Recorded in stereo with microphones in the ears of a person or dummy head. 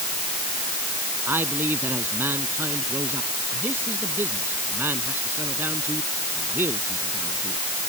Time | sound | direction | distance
1.3 | a man speaking | 15° right (ahead or behind) | ?